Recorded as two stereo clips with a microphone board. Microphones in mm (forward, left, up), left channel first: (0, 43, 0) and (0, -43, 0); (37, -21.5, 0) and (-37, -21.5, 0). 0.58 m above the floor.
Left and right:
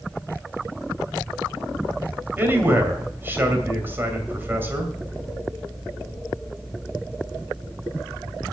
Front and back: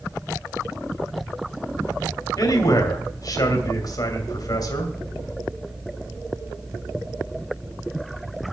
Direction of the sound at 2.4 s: 25° right.